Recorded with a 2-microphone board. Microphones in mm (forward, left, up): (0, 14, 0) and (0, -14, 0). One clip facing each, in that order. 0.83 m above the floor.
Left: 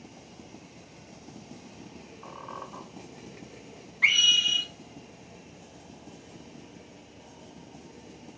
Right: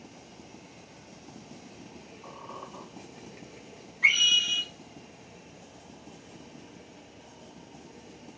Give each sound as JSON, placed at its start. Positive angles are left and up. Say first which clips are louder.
{"t": 2.2, "sound": "a squeak", "louder": "left 2 dB", "side_deg": 90, "distance_m": 2.0}
{"t": 4.0, "sound": "a scream", "louder": "left 1 dB", "side_deg": 55, "distance_m": 1.6}